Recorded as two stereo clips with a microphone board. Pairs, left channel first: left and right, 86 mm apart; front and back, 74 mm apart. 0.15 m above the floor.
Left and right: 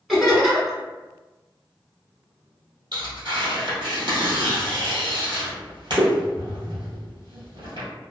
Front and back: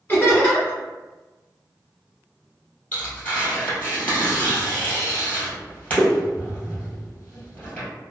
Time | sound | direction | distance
0.1 | laughter | 5° right | 1.2 m
2.9 | tearing paper | 65° right | 1.8 m